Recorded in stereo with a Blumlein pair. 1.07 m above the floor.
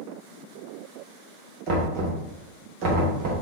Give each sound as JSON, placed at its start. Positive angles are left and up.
{"t": 1.7, "sound": "knocking", "azimuth_deg": -35, "distance_m": 1.1}